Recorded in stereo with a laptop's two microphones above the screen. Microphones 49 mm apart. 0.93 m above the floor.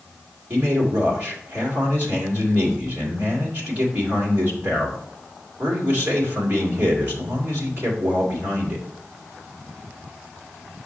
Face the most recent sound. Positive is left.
turn(degrees=-35)  # may be behind; listen again after turning